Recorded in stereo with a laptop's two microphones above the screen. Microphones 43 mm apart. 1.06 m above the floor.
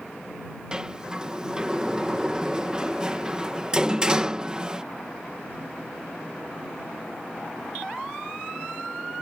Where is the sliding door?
20° right (ahead or behind).